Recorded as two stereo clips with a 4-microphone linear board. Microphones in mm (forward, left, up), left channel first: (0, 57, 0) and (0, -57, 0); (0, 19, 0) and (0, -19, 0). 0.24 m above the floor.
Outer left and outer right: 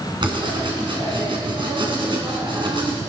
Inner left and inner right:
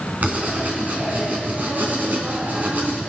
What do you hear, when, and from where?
0.2 s writing: 45° right (ahead or behind), 3 m